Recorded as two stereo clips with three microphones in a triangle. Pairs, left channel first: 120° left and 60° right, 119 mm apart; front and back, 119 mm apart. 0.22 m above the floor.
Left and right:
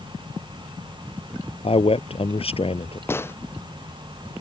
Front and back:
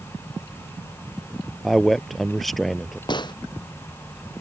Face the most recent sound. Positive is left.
turn(degrees=50)